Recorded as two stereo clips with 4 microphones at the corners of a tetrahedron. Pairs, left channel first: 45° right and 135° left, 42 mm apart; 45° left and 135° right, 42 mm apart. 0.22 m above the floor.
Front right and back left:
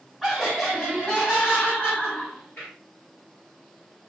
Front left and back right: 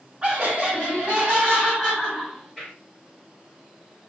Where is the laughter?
145° right, 1.6 m; by 2.7 s 50° right, 1.9 m.